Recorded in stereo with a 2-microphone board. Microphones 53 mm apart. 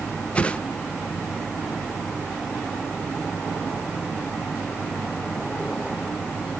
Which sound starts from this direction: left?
A whoosh, at 0.3 s.